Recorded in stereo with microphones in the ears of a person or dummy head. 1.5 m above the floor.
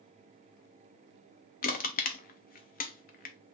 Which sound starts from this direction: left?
Crushing, at 1.6 s.